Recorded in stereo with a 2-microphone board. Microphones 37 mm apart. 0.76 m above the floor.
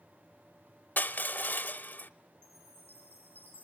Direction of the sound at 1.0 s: 55° left (ahead or behind).